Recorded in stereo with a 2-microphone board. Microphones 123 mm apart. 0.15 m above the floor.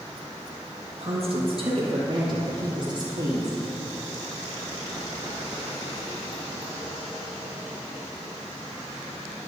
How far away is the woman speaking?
About 4.5 m.